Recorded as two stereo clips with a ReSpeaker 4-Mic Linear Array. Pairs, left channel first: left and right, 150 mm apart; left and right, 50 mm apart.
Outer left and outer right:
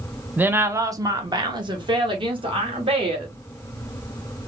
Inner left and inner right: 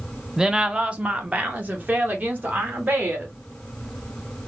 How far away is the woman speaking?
About 0.7 m.